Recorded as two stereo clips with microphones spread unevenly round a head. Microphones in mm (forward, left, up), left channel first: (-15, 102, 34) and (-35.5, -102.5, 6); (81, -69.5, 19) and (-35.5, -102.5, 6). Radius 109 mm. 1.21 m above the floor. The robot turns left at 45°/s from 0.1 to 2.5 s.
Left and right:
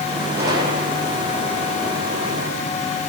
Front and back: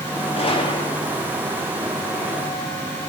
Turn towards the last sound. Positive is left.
turn(degrees=-115)